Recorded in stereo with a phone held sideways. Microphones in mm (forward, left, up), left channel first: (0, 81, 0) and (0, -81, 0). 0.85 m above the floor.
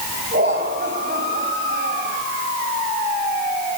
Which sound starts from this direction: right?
Laughter, at 0.3 s.